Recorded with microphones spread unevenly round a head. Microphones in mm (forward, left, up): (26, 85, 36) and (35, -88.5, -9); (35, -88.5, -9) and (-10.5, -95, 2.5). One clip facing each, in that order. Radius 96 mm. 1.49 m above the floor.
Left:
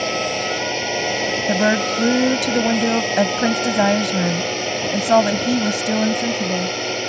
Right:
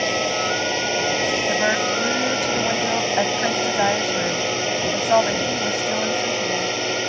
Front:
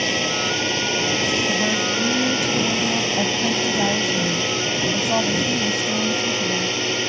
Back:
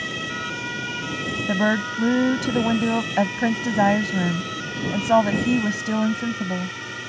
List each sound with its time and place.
0.0 s a drone: 5° left
1.5 s a woman speaking: 135° left